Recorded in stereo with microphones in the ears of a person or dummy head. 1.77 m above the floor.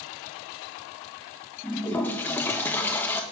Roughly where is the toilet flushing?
Centre.